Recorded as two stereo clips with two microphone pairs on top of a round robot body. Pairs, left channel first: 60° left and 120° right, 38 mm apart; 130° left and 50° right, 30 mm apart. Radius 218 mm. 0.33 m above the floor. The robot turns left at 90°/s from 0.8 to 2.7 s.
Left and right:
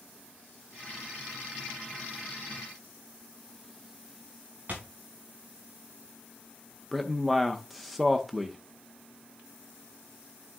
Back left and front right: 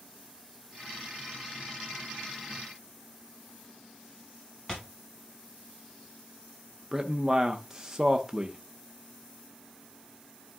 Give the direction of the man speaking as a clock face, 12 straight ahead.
11 o'clock.